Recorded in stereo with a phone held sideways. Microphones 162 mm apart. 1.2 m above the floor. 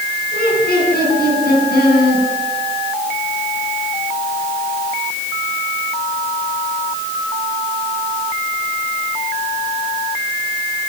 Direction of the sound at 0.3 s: 60° left (ahead or behind).